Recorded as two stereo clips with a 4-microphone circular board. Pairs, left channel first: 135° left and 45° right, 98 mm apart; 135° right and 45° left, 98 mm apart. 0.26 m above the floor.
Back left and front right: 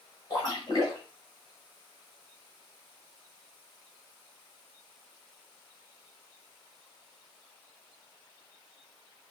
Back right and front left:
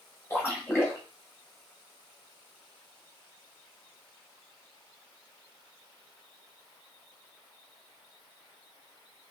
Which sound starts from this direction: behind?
A splash, at 0.3 s.